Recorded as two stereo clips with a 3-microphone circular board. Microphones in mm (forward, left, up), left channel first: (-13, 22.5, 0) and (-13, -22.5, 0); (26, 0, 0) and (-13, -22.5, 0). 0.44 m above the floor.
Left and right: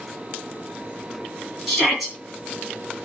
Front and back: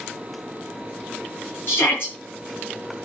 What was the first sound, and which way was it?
A shout, 5° right.